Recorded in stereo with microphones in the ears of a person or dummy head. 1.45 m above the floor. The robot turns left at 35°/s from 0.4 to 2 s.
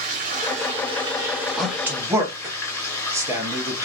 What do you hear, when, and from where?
0.0 s running water: 130° right, 0.8 m; by 3.9 s 175° left, 0.8 m
1.6 s a man speaking: 5° left (ahead or behind), 1.0 m; by 3.9 s 10° right (ahead or behind), 1.0 m